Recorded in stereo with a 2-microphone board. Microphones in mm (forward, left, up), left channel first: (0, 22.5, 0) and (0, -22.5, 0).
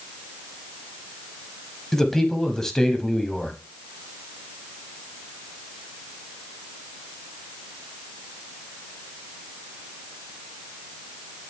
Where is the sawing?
I don't hear sawing.